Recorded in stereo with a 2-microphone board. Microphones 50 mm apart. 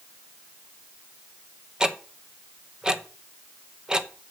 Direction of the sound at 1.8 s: 15° right (ahead or behind).